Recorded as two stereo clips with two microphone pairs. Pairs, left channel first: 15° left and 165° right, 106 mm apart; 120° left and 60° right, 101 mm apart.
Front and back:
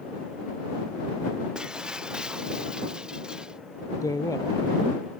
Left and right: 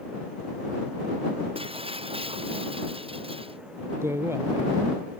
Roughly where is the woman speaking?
Ahead.